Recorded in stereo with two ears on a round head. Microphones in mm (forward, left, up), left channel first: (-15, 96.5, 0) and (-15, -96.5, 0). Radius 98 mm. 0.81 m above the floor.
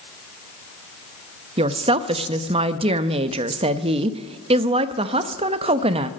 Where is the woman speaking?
25° right (ahead or behind), 0.5 m.